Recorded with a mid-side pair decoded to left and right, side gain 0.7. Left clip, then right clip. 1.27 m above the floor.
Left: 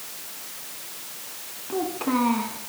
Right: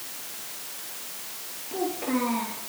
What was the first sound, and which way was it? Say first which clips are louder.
A child speaking: left 3 dB; 60° left.